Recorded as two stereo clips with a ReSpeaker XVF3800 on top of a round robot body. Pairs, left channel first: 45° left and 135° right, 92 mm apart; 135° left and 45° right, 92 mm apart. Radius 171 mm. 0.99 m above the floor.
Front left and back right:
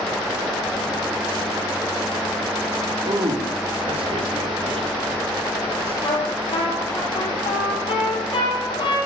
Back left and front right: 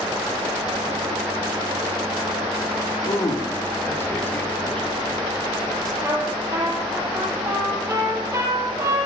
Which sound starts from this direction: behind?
A man speaking, at 3.0 s.